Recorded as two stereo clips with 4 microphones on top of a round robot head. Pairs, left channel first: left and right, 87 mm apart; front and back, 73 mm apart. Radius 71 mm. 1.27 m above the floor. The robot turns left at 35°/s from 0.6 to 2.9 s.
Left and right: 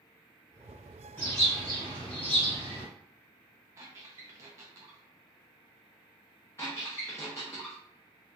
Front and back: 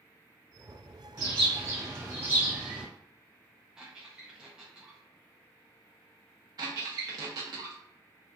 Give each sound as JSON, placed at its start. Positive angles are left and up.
{"t": 1.2, "sound": "a bird", "azimuth_deg": 160, "distance_m": 1.6}
{"t": 3.8, "sound": "a squeak", "azimuth_deg": -105, "distance_m": 0.6}
{"t": 6.6, "sound": "a squeak", "azimuth_deg": 160, "distance_m": 0.9}